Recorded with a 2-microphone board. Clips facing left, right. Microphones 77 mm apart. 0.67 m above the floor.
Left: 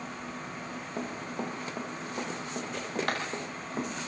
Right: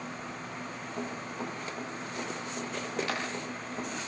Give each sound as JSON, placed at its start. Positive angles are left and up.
{"t": 1.0, "sound": "running footsteps", "side_deg": 40, "distance_m": 7.5}